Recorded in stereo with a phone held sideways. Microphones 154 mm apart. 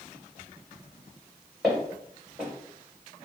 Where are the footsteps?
Centre (ahead or behind), 1.8 m.